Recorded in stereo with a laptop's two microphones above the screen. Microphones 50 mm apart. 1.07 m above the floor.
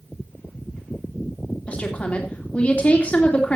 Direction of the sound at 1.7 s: 25° left (ahead or behind).